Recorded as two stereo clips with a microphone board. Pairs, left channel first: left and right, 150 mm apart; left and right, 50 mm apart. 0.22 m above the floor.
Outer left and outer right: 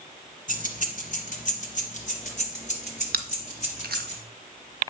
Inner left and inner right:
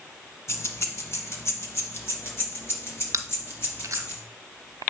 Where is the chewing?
80° right, 0.7 m.